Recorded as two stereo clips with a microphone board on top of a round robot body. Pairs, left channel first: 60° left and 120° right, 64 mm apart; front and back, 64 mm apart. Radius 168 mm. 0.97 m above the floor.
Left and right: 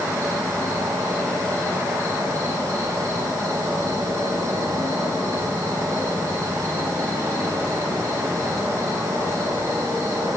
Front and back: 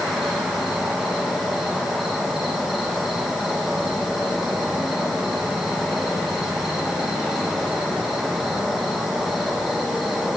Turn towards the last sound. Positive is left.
turn(degrees=-95)